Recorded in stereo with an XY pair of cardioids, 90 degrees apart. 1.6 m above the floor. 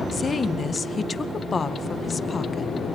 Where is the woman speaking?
40° left, 1.8 m.